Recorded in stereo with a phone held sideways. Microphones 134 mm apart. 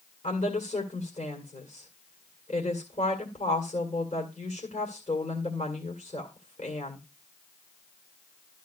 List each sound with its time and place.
0.2 s a woman speaking: 60° left (ahead or behind), 2.5 m